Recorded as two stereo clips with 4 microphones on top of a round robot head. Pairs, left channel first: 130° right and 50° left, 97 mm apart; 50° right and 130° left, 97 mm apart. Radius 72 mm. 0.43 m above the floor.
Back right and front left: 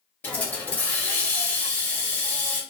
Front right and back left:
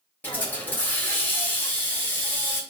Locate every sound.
0.2 s a hiss: 85° right, 1.0 m